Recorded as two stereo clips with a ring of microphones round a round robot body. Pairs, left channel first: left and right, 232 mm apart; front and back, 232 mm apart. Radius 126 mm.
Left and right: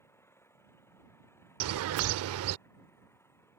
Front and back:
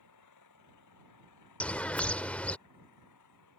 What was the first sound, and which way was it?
An engine running, 10° left.